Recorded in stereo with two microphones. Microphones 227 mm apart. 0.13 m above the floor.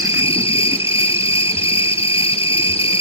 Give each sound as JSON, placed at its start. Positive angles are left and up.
{"t": 0.0, "sound": "an insect", "side_deg": 25, "distance_m": 0.7}